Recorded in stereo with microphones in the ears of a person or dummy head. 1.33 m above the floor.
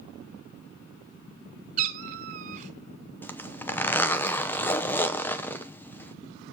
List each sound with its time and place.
1.8 s a cat meowing: 40° right (ahead or behind), 1.9 m
3.2 s a zipper: 10° left (ahead or behind), 0.7 m